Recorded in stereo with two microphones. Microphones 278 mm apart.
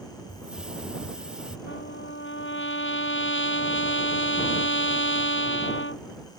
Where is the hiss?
5° right (ahead or behind).